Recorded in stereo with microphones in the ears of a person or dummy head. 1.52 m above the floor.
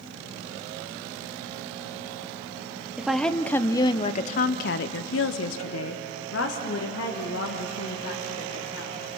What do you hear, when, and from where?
3.0 s a woman speaking: 5° right (ahead or behind), 0.9 m; by 9.0 s 65° left (ahead or behind), 2.5 m